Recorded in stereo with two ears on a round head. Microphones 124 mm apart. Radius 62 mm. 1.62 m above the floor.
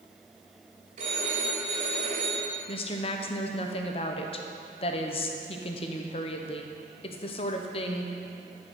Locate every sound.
1.0 s a phone ringing: 55° right (ahead or behind), 3 m
2.7 s a woman speaking: 40° left (ahead or behind), 0.8 m